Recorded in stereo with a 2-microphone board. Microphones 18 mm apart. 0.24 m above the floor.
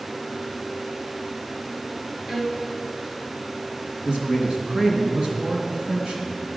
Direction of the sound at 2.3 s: 30° right (ahead or behind).